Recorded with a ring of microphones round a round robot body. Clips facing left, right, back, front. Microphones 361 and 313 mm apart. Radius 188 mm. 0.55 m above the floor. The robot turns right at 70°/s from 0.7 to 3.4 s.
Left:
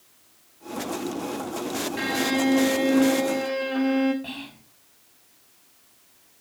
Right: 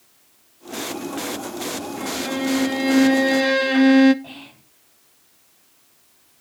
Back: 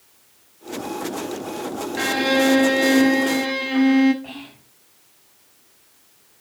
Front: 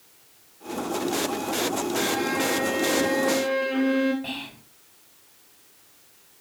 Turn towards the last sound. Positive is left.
turn(degrees=35)